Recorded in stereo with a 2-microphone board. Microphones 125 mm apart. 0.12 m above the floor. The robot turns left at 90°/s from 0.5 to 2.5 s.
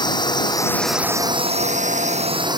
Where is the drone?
35° left; by 2.6 s 145° right.